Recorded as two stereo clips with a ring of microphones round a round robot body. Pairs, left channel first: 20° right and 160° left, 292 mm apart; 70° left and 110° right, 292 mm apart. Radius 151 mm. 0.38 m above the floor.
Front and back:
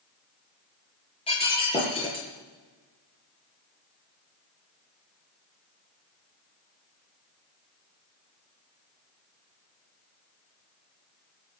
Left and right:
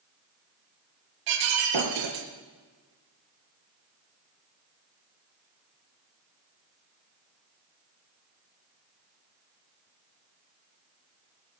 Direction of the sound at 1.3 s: 95° right.